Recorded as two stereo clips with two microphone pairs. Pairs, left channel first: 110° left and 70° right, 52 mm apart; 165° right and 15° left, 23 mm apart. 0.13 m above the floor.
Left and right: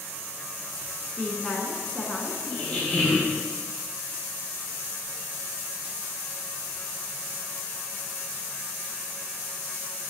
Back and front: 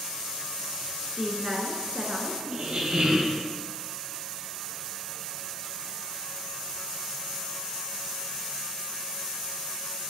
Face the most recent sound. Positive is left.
turn(degrees=40)